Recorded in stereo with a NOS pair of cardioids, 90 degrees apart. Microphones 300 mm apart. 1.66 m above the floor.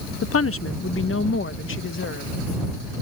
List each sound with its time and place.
0.2 s a woman speaking: 50° left; by 2.3 s 40° left